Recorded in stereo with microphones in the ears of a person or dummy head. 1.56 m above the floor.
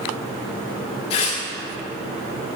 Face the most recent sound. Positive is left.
turn(degrees=25)  # may be behind; listen again after turning